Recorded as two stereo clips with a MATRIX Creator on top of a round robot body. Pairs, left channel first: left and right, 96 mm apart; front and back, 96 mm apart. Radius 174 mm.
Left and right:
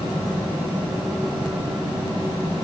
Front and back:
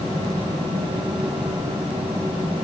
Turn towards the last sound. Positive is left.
No sound to turn to.